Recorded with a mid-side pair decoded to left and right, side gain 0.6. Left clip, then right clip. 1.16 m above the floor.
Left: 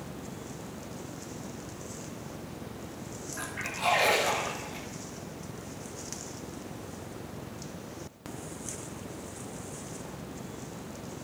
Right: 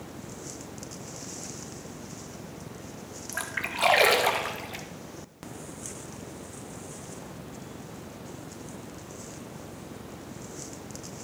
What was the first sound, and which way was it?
A splash, 60° right.